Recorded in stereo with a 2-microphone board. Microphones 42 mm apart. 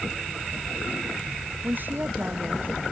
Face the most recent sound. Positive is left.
turn(degrees=-50)  # may be behind; listen again after turning